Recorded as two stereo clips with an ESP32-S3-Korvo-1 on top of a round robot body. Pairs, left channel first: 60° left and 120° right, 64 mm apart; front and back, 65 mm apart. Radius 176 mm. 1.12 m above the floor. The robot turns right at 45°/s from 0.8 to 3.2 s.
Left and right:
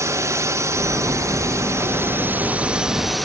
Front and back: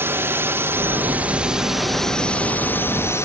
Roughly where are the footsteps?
No footsteps in this recording.